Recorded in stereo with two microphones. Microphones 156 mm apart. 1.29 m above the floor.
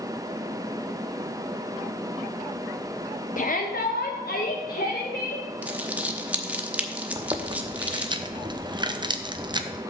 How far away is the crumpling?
About 0.8 m.